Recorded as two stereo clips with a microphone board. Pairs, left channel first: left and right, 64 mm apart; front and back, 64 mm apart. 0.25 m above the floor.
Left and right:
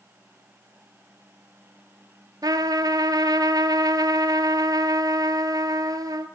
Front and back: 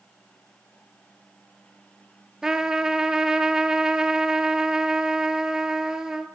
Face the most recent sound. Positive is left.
turn(degrees=-100)